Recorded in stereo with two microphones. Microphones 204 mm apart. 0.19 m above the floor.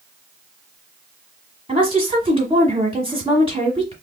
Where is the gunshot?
I don't hear a gunshot.